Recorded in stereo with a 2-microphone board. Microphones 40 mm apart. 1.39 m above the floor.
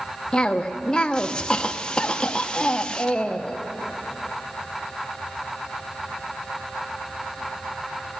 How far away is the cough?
About 0.7 m.